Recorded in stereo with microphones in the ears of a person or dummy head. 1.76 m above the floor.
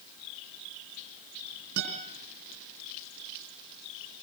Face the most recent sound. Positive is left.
turn(degrees=-60)  # may be behind; listen again after turning